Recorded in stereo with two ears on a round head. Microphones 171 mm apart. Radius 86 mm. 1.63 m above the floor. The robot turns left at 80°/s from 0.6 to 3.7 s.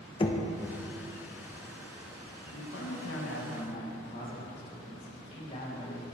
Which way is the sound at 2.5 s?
125° left.